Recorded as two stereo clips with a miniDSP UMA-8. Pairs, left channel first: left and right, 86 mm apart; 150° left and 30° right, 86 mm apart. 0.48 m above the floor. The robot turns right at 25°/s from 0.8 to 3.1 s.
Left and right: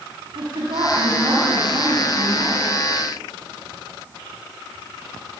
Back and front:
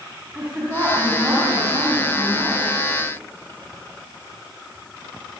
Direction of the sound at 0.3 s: 105° right.